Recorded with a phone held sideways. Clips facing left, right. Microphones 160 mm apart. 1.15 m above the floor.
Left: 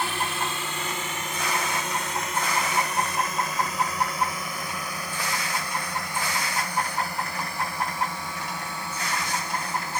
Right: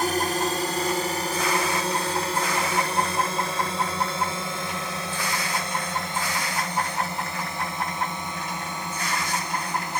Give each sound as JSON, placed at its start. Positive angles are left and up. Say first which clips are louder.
{"t": 0.0, "sound": "a drone", "louder": "right 5 dB", "side_deg": -40}